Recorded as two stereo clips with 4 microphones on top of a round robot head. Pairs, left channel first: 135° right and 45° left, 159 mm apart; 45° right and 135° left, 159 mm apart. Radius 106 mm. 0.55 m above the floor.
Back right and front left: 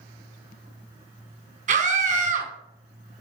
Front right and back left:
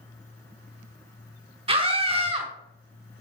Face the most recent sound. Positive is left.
turn(degrees=85)